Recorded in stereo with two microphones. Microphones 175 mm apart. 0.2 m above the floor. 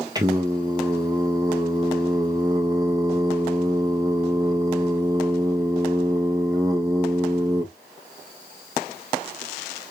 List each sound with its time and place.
0.1 s singing: 20° right (ahead or behind), 1.8 m